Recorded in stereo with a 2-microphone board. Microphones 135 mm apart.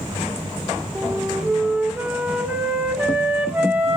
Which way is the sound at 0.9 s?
10° right (ahead or behind).